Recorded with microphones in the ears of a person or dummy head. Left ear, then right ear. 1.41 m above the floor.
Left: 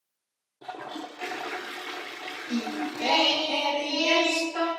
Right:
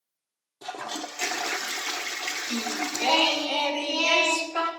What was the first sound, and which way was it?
A toilet flushing, 75° right (ahead or behind).